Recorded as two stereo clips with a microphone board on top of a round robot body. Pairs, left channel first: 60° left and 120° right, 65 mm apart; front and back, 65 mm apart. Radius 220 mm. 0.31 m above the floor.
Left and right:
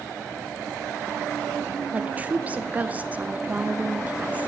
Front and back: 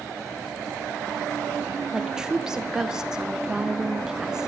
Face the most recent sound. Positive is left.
turn(degrees=-115)